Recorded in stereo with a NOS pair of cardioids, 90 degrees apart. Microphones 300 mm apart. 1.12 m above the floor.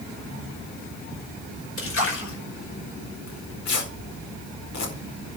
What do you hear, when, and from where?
1.8 s a splash: 45° left, 5.5 m
3.3 s tearing paper: 65° left, 4.5 m